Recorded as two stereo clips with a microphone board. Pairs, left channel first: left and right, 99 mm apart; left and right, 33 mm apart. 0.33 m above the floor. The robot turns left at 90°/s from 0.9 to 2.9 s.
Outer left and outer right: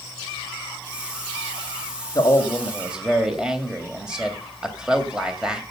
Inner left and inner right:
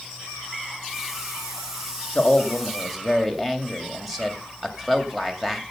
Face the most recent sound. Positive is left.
turn(degrees=-10)